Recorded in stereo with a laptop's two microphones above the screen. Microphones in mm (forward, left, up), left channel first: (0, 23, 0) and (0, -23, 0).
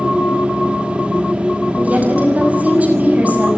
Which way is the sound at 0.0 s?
25° right (ahead or behind).